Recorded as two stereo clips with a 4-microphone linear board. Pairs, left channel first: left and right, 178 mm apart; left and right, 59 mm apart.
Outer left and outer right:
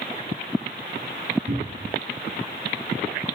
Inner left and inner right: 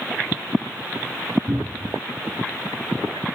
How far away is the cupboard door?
About 1.4 m.